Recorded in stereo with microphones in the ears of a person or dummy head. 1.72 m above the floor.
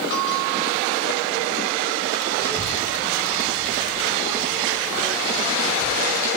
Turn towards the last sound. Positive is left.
turn(degrees=10)  # may be behind; listen again after turning